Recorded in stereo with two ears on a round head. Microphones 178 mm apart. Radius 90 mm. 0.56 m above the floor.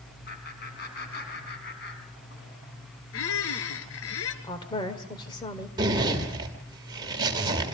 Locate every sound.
0.3 s laughter: 50° left (ahead or behind), 6 m; by 2.5 s 60° left (ahead or behind), 5.5 m
3.1 s a squeak: 80° left, 1.8 m
4.4 s a woman speaking: 20° left (ahead or behind), 2 m
5.8 s a zipper: 20° right (ahead or behind), 2.5 m